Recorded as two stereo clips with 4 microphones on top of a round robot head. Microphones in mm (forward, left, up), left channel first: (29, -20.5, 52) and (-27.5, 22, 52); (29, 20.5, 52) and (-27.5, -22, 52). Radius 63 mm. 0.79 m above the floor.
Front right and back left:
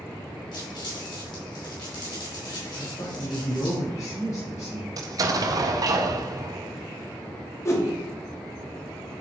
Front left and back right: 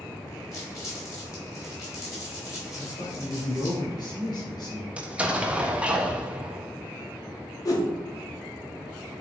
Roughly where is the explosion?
Behind left.